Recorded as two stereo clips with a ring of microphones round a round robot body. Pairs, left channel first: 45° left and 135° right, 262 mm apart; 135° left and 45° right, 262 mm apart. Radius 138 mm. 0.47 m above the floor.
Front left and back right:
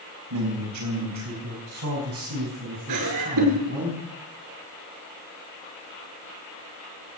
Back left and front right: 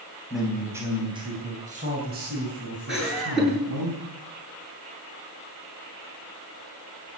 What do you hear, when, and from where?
0.3 s a man speaking: 135° right, 4 m; by 3.9 s 80° right, 5.5 m
2.9 s laughter: 130° right, 8.5 m